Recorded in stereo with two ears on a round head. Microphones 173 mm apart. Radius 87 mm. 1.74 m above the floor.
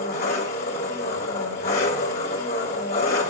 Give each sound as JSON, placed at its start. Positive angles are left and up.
{"t": 0.0, "sound": "an engine running", "side_deg": 50, "distance_m": 2.0}